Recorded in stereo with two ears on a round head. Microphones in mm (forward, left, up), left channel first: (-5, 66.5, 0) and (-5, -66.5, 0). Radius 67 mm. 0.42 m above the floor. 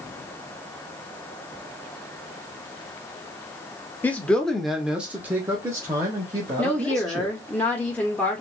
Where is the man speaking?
10° left (ahead or behind), 0.9 m; by 7.4 s 25° right (ahead or behind), 1.8 m.